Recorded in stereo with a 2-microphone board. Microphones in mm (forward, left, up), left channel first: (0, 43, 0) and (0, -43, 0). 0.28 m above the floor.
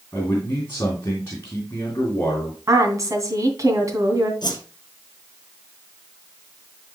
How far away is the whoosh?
About 2.5 m.